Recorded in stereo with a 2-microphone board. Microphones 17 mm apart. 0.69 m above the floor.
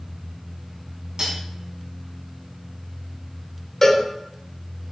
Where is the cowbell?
25° left (ahead or behind), 2.5 m.